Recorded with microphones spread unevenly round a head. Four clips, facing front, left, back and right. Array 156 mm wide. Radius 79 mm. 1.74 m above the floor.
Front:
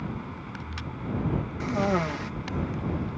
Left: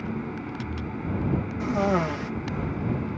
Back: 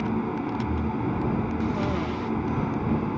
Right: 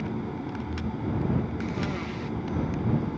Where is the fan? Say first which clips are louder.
Even, back 10 dB; straight behind.